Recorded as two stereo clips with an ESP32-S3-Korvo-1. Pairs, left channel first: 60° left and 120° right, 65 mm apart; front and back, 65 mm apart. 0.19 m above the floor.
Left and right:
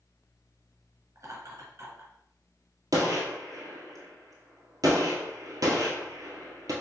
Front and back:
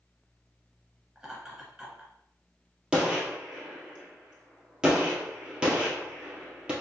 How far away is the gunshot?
About 1.4 m.